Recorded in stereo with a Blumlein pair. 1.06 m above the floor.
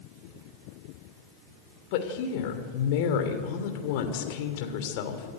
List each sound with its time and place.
1.9 s a woman speaking: 50° left, 3 m